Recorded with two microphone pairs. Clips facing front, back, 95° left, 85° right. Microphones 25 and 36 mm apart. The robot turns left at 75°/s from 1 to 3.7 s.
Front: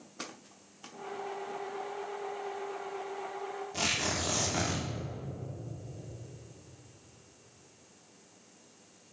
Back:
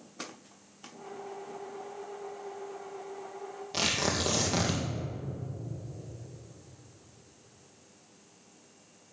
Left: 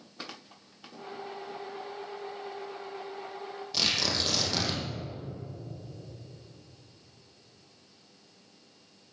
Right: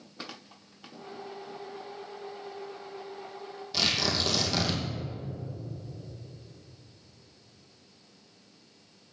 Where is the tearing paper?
170° right, 3 m.